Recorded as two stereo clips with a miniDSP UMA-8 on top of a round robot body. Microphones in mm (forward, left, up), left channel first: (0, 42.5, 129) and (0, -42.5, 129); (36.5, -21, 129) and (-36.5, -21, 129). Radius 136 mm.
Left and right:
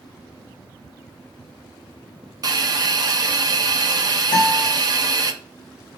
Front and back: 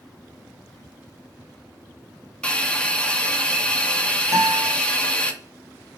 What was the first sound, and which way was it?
A hiss, 75° right.